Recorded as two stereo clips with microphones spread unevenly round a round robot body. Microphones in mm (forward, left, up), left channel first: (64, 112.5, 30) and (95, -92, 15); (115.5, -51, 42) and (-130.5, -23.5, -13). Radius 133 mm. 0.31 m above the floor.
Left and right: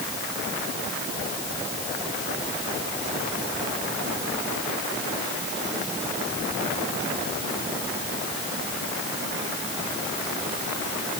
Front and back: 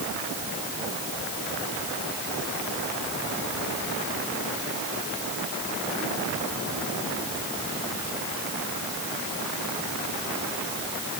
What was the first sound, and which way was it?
Only background noise.